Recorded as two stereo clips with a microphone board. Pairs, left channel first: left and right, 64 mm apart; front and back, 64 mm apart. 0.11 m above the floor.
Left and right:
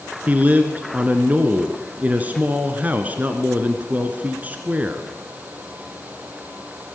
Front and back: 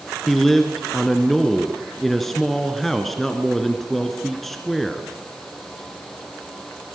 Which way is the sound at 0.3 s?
85° right.